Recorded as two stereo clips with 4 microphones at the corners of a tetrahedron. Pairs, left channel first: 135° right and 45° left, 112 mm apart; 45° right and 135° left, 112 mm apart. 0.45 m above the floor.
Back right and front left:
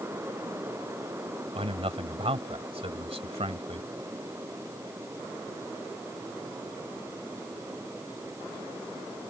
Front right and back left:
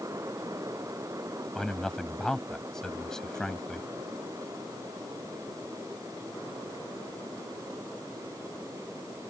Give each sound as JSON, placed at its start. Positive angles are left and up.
{"t": 1.6, "sound": "a man speaking", "azimuth_deg": 40}